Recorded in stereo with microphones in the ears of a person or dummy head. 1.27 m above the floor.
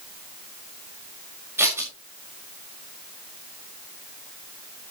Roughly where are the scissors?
Centre.